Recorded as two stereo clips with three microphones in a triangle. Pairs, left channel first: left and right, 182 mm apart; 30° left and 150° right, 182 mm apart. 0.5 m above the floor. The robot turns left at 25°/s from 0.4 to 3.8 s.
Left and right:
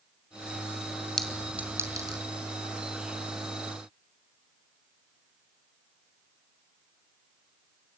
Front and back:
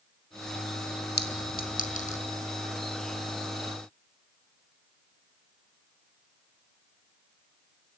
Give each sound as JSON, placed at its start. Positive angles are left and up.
{"t": 1.2, "sound": "a clink", "azimuth_deg": 5, "distance_m": 2.5}